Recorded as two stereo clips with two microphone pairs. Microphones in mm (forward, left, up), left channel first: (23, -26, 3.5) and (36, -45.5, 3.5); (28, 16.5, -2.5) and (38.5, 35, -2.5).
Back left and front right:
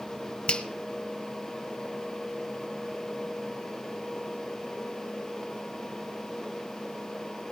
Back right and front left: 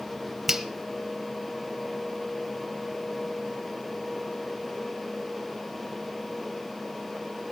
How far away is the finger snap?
About 1.1 m.